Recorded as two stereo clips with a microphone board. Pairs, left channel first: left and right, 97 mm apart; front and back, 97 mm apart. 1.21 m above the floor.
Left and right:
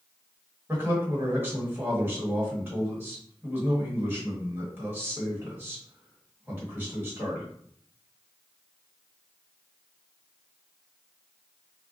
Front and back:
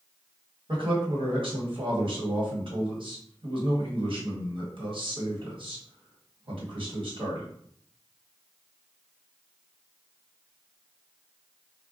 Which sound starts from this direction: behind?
A man speaking, at 0.7 s.